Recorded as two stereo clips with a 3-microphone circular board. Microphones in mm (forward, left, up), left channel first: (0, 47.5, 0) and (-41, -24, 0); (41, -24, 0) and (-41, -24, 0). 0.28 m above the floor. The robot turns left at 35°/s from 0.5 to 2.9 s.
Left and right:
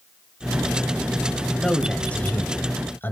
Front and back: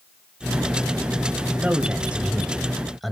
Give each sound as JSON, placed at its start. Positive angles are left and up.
{"t": 1.6, "sound": "a man speaking", "azimuth_deg": 135, "distance_m": 1.2}